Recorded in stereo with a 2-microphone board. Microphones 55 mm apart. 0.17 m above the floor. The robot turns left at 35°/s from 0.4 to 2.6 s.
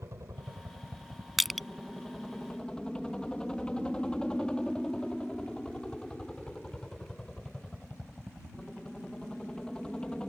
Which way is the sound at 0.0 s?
120° right.